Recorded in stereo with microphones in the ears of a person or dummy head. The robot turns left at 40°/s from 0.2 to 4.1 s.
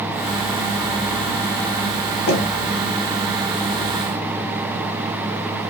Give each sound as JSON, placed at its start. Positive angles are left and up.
{"t": 2.3, "sound": "knocking", "side_deg": 55, "distance_m": 1.1}